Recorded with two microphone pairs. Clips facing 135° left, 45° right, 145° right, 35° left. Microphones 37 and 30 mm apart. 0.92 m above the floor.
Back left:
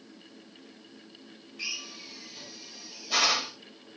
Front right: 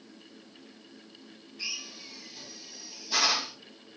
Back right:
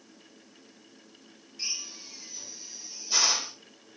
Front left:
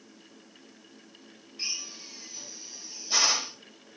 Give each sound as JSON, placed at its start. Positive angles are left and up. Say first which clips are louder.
{"t": 1.6, "sound": "a drill", "louder": "back left 1 dB, front left 1 dB", "azimuth_deg": 115, "distance_m": 3.5}